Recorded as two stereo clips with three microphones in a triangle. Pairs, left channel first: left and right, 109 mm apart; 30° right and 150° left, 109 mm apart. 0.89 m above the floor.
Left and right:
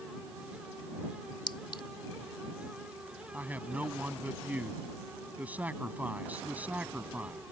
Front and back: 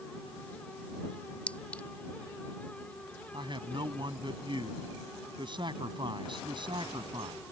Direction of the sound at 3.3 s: 165° right.